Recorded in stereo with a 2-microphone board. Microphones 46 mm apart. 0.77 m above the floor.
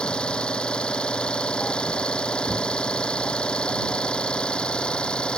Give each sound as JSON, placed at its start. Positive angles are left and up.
{"t": 0.0, "sound": "an engine running", "side_deg": 20}